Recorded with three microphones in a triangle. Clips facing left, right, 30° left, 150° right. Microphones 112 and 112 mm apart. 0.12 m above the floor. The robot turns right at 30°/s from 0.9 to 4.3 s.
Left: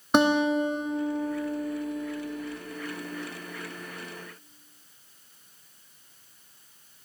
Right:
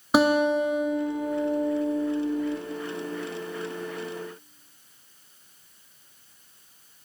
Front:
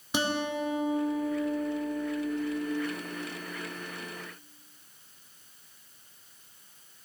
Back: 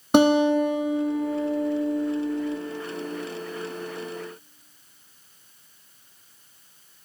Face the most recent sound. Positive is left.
turn(degrees=-75)